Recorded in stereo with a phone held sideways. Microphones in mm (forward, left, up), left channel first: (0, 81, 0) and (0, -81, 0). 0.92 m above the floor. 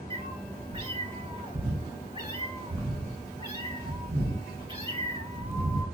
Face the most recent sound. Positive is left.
turn(degrees=-35)  # may be behind; listen again after turning